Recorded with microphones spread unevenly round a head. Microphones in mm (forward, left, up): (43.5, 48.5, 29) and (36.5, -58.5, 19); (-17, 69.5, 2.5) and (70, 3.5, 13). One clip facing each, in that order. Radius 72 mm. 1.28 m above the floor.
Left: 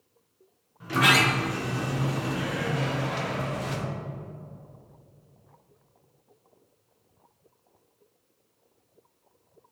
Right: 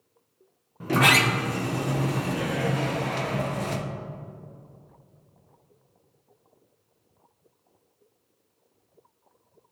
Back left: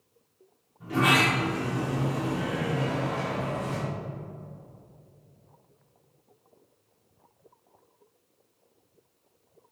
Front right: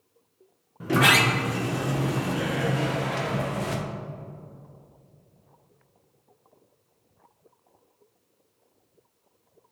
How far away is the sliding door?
About 0.8 m.